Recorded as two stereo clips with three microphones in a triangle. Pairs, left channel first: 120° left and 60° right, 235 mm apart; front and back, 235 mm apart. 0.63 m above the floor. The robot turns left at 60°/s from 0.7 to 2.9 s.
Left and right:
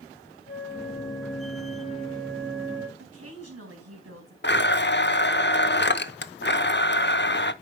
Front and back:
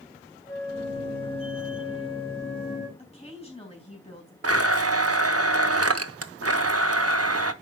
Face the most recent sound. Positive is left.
turn(degrees=165)